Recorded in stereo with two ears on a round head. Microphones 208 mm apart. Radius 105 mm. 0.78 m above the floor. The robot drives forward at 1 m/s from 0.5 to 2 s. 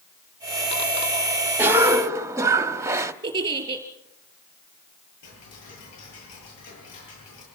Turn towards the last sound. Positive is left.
turn(degrees=70)  # may be behind; listen again after turning